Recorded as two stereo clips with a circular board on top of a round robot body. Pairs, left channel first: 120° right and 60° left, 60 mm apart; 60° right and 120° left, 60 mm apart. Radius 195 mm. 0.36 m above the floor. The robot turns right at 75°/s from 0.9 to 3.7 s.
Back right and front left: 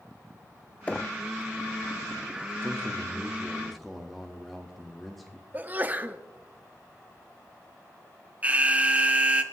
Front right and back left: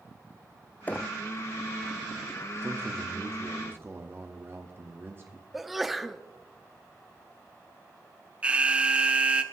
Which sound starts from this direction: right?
Knocking, at 0.9 s.